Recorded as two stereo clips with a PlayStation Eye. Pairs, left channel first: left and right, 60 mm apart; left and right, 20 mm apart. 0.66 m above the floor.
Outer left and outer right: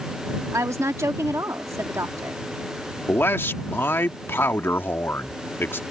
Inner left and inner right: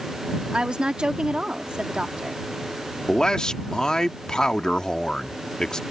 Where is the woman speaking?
50° right (ahead or behind).